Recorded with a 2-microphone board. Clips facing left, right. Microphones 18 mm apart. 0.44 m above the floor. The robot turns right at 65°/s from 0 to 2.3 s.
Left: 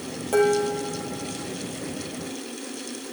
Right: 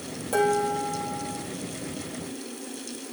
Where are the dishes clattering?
25° left, 9 m; by 1.4 s 95° left, 9 m.